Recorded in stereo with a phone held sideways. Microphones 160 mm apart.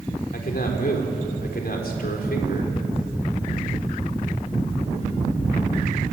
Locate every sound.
0.3 s a man speaking: 70° left (ahead or behind), 4 m